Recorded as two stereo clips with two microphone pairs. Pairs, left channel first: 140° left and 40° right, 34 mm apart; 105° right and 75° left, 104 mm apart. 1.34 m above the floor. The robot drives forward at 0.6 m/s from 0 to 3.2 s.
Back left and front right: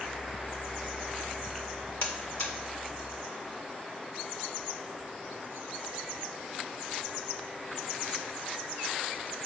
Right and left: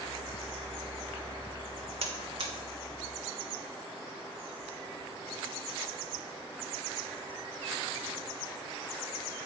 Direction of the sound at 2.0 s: 95° left.